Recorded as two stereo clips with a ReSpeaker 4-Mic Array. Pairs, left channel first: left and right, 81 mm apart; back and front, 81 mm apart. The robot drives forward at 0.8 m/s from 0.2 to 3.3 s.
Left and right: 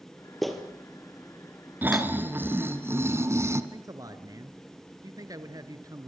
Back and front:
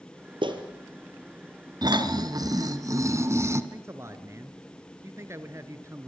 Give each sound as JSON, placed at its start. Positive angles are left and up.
{"t": 0.4, "sound": "a clap", "azimuth_deg": 0, "distance_m": 4.5}
{"t": 1.8, "sound": "snoring", "azimuth_deg": -25, "distance_m": 2.5}
{"t": 3.7, "sound": "a man speaking", "azimuth_deg": -55, "distance_m": 2.5}